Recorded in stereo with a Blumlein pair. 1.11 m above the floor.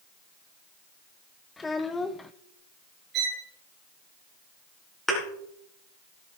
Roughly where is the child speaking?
Ahead.